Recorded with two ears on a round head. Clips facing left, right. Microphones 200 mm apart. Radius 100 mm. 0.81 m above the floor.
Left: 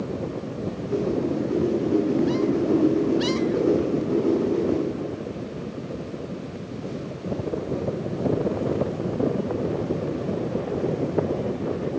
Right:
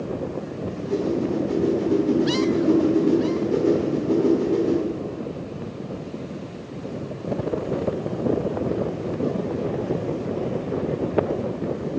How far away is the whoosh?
About 1.4 m.